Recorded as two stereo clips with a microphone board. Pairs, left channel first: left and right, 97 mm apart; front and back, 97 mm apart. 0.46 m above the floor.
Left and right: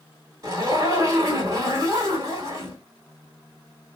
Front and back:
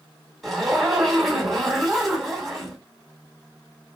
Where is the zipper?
90° right, 1.8 m.